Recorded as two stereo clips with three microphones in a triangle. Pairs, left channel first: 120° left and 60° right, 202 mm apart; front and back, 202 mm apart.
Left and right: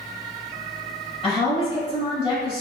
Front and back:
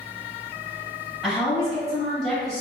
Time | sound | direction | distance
1.2 | a woman speaking | 85° left | 1.7 m